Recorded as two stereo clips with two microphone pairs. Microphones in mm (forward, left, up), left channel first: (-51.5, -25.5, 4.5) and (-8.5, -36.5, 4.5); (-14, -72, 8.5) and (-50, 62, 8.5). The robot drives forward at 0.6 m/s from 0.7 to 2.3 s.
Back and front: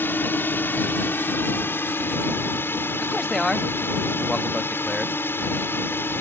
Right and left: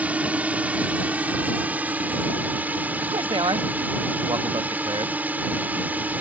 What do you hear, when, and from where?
0.0 s a drone: 175° right; by 6.2 s straight behind
3.0 s a man speaking: 85° left